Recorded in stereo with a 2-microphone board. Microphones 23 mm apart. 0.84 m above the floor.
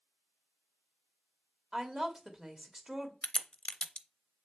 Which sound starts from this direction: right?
A woman speaking, at 1.7 s.